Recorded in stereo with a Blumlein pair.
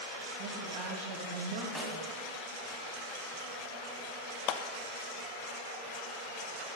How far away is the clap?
About 0.6 m.